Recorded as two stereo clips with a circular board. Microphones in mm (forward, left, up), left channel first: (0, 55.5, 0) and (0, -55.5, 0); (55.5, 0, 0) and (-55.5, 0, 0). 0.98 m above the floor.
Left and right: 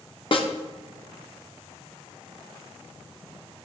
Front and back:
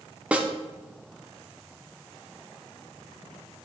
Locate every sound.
0.3 s a snare drum: 105° left, 0.7 m